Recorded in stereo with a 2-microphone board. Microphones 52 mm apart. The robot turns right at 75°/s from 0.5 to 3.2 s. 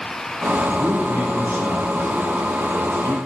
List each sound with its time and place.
0.7 s a man speaking: 130° right, 3.5 m; by 3.2 s 60° left, 3.5 m